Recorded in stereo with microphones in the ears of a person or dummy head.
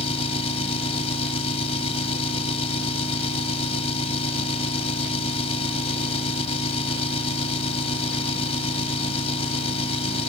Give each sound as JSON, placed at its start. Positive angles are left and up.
{"t": 0.0, "sound": "an engine running", "side_deg": 35}